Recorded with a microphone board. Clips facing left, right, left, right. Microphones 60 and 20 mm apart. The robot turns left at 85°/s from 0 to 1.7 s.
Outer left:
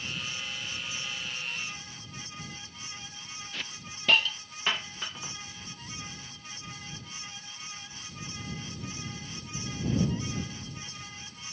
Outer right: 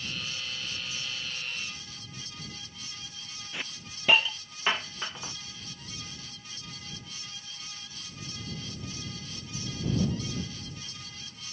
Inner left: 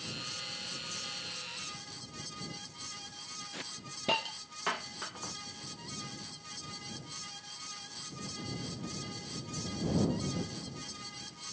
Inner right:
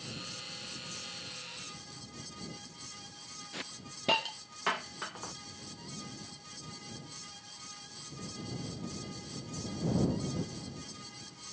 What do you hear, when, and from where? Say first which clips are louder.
3.5 s a hiss: outer right 3 dB, inner left 1 dB; 15° right (ahead or behind)